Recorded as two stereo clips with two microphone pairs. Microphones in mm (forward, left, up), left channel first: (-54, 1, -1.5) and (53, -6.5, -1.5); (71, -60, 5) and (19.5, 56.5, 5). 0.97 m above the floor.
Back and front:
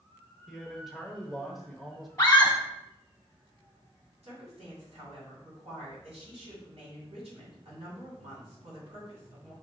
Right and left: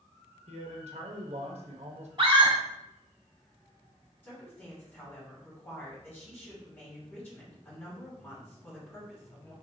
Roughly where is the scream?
Behind left.